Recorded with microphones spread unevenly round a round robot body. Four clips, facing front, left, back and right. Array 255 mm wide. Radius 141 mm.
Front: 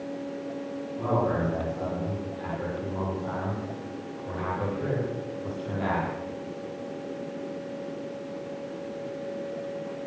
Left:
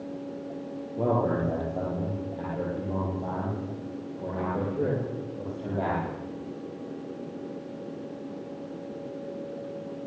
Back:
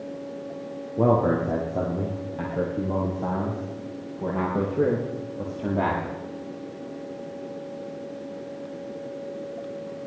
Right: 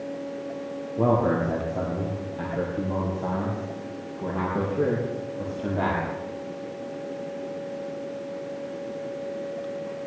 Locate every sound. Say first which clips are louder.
1.0 s a man speaking: right 4 dB, back 6 dB; 165° right, 8 m; by 6.0 s 150° right, 8.5 m